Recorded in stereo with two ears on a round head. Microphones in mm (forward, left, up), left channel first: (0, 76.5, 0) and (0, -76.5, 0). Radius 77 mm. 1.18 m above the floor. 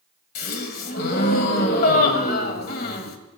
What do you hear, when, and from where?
0.3 s a gasp: 55° left (ahead or behind), 1.7 m